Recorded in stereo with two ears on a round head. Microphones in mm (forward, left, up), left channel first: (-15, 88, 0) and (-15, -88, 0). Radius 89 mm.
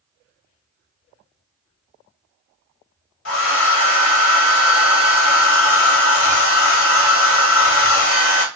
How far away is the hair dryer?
About 1.1 m.